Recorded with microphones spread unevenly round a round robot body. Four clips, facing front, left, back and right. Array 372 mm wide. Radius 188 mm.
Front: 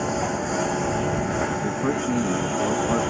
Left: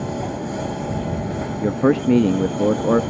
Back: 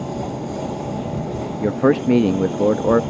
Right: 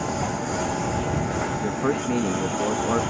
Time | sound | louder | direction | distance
0.0 | a lawn mower | even, front 1 dB | 5° right | ?
1.6 | a man speaking | left 11 dB, back 7 dB | 125° left | ?